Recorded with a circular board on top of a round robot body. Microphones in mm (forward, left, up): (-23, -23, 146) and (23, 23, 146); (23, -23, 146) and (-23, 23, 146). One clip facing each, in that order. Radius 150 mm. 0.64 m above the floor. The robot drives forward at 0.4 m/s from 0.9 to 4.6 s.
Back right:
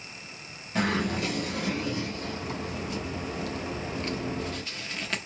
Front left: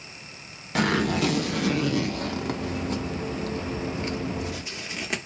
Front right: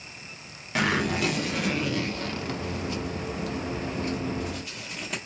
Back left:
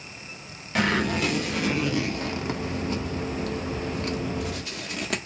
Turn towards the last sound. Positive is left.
turn(degrees=125)